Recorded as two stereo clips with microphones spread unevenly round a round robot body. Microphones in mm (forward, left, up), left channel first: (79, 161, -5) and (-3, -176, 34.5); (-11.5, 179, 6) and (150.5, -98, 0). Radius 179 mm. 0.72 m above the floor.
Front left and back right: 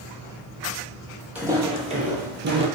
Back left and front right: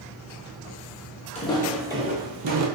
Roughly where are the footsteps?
Behind.